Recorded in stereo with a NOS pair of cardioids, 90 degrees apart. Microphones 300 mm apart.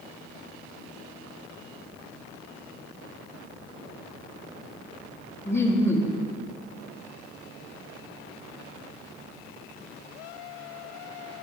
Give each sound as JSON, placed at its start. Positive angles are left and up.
{"t": 5.5, "sound": "laughter", "azimuth_deg": 10, "distance_m": 0.8}